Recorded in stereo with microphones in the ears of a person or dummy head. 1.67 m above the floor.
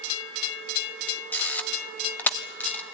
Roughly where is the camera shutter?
Centre.